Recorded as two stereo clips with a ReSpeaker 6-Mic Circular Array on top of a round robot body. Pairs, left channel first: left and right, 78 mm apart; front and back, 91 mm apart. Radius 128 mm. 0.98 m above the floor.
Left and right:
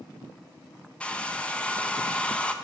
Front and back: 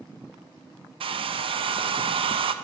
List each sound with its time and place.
1.0 s a hair dryer: 165° left, 0.7 m